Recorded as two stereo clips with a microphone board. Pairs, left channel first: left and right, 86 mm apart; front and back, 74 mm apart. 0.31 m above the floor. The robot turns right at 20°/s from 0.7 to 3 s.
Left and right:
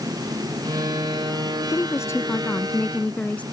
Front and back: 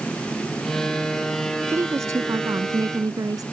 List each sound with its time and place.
1.7 s a woman speaking: 135° left; by 3.4 s 160° left